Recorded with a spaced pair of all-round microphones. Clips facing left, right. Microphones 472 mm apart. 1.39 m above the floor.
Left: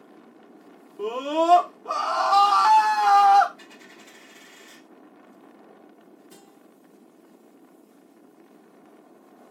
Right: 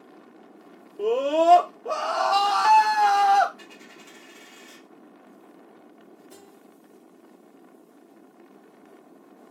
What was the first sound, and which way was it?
A scream, 20° left (ahead or behind).